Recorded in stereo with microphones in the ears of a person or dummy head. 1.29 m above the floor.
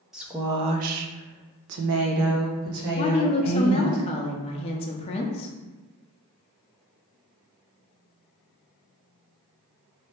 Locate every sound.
0.1 s a woman speaking: 5° right (ahead or behind), 0.6 m; by 4.0 s 65° right (ahead or behind), 1.8 m
3.0 s a woman speaking: 30° left (ahead or behind), 0.6 m